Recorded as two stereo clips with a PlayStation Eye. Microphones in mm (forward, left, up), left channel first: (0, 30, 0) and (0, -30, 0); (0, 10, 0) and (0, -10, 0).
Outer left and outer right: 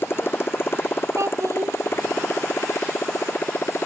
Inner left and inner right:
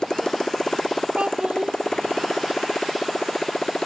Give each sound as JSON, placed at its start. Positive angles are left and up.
{"t": 0.0, "sound": "a motorcycle", "side_deg": 40}
{"t": 1.2, "sound": "a child speaking", "side_deg": -55}